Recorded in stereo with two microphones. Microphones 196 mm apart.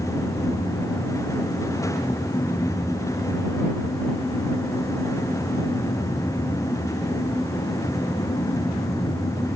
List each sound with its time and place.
Only background noise.